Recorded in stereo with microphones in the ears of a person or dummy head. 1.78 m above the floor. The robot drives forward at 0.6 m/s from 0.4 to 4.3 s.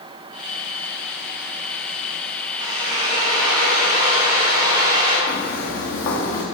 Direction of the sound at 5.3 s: 65° left (ahead or behind).